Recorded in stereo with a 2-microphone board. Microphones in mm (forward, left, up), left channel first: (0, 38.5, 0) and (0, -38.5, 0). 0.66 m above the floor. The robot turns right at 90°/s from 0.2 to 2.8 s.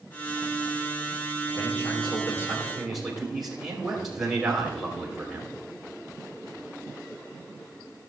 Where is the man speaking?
70° left, 3 m; by 5.5 s 175° right, 3 m.